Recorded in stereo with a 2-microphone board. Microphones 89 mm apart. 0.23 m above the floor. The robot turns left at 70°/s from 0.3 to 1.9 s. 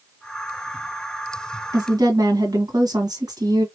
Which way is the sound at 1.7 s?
50° right (ahead or behind).